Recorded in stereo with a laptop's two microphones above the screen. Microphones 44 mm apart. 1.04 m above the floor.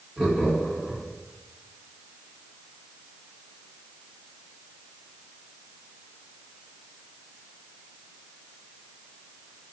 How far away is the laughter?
About 2 m.